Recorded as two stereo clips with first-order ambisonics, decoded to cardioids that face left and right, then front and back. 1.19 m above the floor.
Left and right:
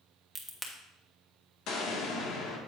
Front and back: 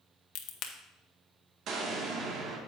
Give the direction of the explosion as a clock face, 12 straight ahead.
8 o'clock.